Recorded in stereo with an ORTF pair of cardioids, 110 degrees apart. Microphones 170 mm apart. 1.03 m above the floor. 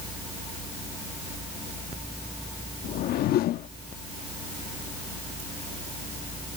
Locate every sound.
2.8 s a whoosh: 70° left